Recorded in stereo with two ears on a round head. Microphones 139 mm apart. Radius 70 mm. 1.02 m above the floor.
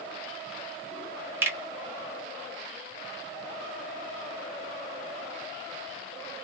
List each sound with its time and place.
1.4 s a finger snap: 15° right (ahead or behind), 1.2 m